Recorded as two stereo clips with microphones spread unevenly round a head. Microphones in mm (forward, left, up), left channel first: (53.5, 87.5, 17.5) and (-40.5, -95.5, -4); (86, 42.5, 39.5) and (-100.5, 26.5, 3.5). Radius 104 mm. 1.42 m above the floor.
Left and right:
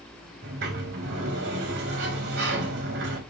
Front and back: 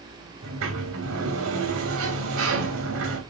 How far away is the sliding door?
About 2.5 m.